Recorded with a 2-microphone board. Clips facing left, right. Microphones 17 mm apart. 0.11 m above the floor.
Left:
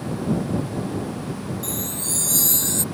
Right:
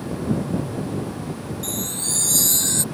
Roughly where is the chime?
Centre.